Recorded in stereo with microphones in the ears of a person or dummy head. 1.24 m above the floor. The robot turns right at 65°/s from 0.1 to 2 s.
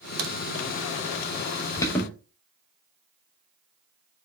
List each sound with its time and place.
0.2 s a crack: 70° right (ahead or behind), 0.9 m; by 0.3 s 65° right (ahead or behind), 0.9 m
1.8 s an alarm: 20° left (ahead or behind), 0.8 m; by 2.1 s 5° left (ahead or behind), 0.8 m